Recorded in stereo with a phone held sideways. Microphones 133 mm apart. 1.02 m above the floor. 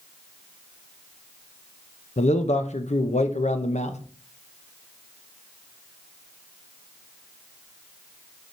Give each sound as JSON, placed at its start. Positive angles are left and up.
{"t": 2.2, "sound": "a man speaking", "side_deg": 60, "distance_m": 0.8}